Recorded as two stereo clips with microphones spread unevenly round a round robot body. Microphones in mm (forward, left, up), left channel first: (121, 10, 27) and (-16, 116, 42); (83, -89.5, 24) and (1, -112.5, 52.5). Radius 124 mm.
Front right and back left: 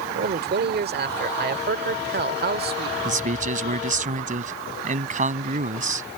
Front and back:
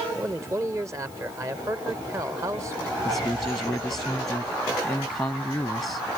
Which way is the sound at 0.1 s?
125° left.